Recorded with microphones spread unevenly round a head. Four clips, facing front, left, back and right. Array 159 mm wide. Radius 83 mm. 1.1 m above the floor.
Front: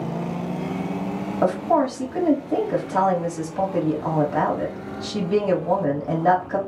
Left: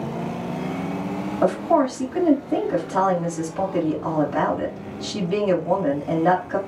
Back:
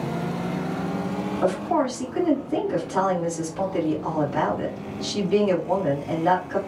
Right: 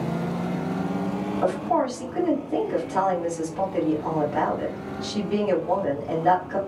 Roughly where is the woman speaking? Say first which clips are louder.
Left 5 dB, front 3 dB; ahead left.